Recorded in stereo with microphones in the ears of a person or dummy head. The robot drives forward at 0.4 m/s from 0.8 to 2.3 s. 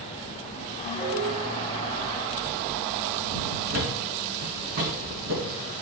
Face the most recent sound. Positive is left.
turn(degrees=-50)  # may be behind; listen again after turning